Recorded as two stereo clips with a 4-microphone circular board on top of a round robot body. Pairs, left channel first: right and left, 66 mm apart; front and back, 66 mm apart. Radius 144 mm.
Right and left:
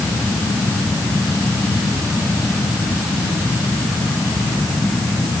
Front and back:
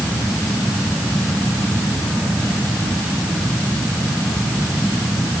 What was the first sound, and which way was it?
Only background noise.